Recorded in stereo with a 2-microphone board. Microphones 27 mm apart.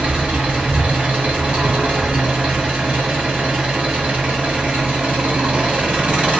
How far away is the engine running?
About 1.3 m.